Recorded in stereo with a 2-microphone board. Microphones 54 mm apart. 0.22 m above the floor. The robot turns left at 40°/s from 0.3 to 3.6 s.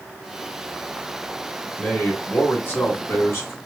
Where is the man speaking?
150° left, 2 m; by 3.5 s 75° left, 2 m.